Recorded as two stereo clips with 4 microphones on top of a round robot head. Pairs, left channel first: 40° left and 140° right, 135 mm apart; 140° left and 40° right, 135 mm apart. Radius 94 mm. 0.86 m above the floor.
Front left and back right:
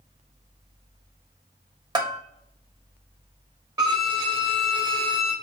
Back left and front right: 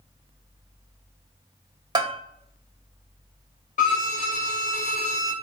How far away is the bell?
About 1.2 m.